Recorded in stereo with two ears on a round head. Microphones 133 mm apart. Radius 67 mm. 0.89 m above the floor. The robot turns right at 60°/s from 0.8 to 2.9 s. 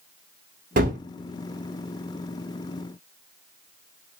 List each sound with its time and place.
0.8 s a gunshot: 60° right (ahead or behind), 0.8 m; by 1.0 s 55° right (ahead or behind), 0.8 m